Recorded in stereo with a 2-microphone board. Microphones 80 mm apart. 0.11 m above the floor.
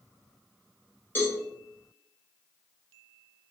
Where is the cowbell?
25° left (ahead or behind), 0.9 m.